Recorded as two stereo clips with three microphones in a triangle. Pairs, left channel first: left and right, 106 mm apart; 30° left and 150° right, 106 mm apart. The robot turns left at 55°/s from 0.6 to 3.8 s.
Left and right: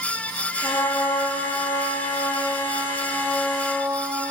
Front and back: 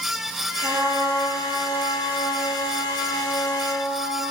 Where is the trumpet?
160° left, 6.5 m; by 4.2 s 15° right, 6.5 m.